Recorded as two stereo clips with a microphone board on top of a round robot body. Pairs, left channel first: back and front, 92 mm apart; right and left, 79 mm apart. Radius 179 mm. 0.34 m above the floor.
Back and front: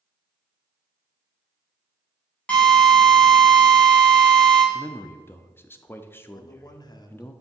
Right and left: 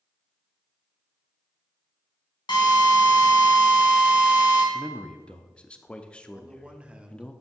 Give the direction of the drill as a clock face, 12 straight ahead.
3 o'clock.